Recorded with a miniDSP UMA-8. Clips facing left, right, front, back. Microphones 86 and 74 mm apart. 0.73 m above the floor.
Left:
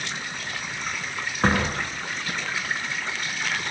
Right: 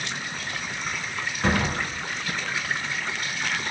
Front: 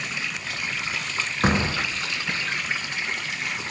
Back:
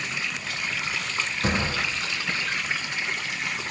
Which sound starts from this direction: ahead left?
A door slam, at 1.4 s.